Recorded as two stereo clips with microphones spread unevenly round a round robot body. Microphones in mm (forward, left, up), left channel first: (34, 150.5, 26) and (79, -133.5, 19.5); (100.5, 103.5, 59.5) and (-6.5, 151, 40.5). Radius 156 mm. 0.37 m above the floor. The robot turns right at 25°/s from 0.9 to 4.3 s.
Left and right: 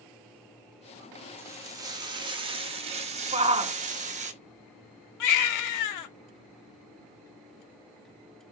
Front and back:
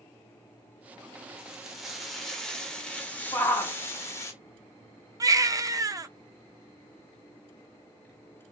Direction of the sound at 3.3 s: 90° right.